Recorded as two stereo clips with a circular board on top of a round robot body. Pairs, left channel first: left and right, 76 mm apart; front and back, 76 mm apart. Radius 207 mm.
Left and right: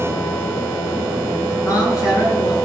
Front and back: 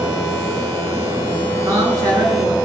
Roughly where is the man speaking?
Behind left.